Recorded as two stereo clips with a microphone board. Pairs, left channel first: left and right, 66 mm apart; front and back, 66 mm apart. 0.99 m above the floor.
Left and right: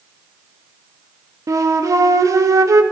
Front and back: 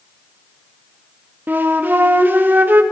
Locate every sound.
1.5 s a flute: 120° right, 0.8 m